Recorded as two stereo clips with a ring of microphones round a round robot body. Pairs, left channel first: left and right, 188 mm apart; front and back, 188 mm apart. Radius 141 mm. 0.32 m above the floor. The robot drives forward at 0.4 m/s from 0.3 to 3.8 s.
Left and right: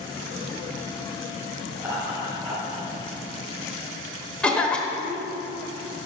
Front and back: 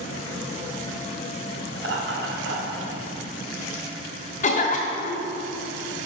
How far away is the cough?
About 1.2 m.